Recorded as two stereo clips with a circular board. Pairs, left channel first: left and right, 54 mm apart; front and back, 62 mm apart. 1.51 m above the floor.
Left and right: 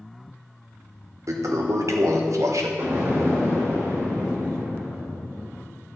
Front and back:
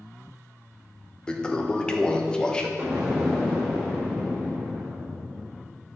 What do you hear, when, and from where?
1.3 s a toilet flushing: 75° right, 1.0 m
2.8 s an explosion: 105° right, 3.5 m